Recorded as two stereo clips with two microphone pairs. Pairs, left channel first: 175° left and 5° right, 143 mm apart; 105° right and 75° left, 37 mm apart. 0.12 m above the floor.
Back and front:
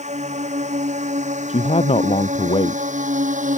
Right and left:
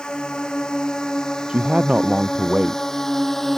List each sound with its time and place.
0.0 s a drone: 35° right; by 3.6 s 25° right
1.5 s a man speaking: 135° left